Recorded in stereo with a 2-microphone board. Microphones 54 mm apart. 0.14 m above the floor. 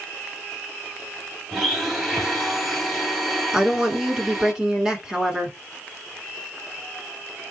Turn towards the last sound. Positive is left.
turn(degrees=-15)  # may be behind; listen again after turning